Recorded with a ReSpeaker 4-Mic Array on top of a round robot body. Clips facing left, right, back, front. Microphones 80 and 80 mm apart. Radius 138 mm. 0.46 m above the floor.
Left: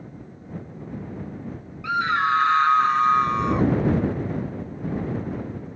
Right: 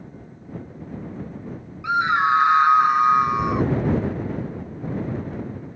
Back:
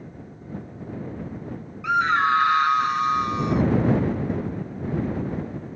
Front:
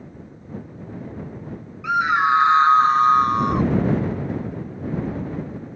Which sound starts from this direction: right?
A scream, at 1.8 s.